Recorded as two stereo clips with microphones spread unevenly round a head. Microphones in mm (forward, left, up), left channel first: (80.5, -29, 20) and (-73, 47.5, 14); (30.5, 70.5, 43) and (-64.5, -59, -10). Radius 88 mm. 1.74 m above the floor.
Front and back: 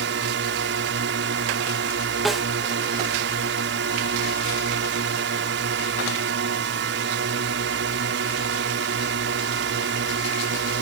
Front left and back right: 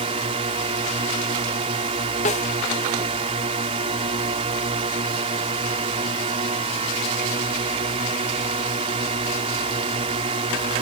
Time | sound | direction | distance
0.0 | a drone | straight behind | ?
2.2 | a snare drum | 60° left | ?